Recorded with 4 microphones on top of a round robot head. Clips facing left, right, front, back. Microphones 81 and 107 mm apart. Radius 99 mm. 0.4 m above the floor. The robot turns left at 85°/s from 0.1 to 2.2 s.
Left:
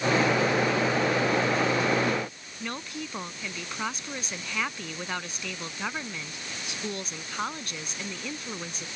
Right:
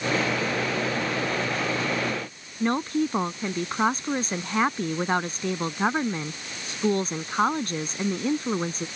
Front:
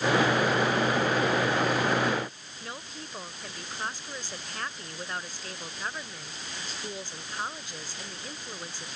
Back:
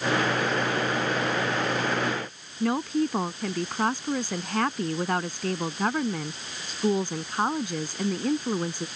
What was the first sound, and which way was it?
A woman speaking, 140° right.